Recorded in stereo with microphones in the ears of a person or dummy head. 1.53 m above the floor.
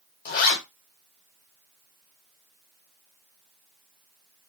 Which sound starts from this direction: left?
A zipper, at 0.2 s.